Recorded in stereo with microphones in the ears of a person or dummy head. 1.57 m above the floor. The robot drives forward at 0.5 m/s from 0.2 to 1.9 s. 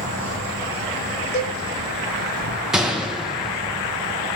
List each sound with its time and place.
0.0 s an insect: 80° right, 3 m; by 4.4 s 65° right (ahead or behind), 3 m
1.3 s a cowbell: 45° left (ahead or behind), 2.5 m; by 1.6 s 40° left (ahead or behind), 2.5 m
2.7 s a gunshot: 5° right (ahead or behind), 0.8 m